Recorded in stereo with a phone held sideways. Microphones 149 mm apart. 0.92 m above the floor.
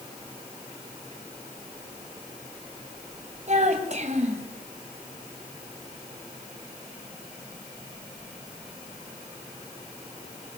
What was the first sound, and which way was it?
A child speaking, 50° right (ahead or behind).